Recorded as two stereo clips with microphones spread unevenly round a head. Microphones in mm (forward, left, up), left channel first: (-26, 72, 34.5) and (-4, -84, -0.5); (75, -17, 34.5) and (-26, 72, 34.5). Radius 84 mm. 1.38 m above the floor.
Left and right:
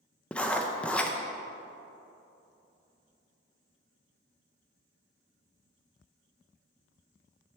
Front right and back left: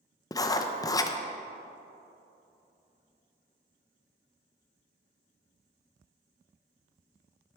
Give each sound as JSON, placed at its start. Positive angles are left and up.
{"t": 0.3, "sound": "writing", "azimuth_deg": 20, "distance_m": 0.7}